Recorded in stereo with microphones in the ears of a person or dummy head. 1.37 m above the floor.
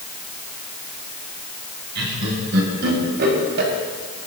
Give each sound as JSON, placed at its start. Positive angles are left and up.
{"t": 1.9, "sound": "laughter", "side_deg": -60, "distance_m": 7.0}